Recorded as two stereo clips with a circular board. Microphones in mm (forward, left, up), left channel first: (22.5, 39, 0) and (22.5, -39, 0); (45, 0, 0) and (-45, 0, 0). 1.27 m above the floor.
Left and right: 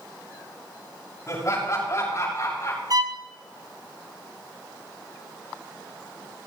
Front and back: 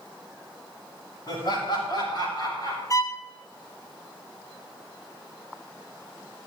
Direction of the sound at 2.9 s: 55° right.